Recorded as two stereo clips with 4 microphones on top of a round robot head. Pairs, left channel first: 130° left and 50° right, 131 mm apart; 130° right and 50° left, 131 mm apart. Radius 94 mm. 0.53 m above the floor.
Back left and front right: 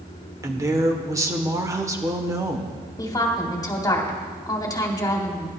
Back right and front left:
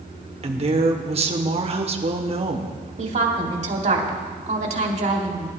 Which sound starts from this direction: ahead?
A woman speaking, at 0.4 s.